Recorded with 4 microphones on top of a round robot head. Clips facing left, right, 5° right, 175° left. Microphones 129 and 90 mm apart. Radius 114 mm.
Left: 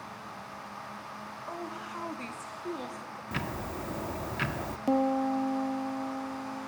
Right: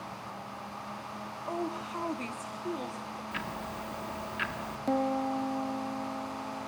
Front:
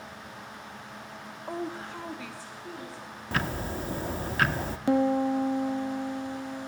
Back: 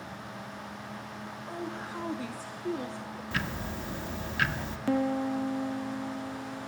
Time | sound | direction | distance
1.5 | a woman speaking | 50° right | 0.9 m
3.3 | ticking | 40° left | 0.7 m
4.9 | a piano | 30° left | 0.6 m